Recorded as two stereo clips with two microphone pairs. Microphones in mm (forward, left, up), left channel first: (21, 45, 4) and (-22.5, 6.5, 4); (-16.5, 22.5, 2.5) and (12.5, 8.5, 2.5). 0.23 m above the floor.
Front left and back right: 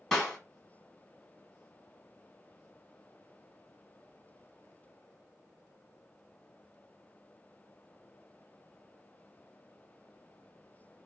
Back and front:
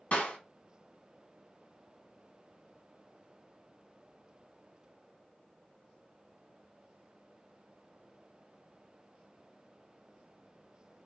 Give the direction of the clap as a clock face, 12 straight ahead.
8 o'clock.